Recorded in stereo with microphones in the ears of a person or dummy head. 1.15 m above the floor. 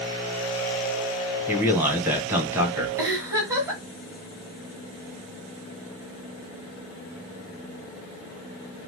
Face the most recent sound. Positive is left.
turn(degrees=-15)  # may be behind; listen again after turning